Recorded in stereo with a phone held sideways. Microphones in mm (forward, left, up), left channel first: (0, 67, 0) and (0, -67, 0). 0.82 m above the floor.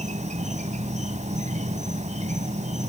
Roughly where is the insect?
Right.